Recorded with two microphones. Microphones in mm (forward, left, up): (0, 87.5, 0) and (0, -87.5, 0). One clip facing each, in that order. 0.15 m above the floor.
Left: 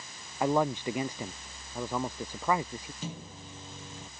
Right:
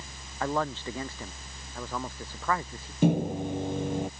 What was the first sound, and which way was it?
A man speaking, 15° left (ahead or behind).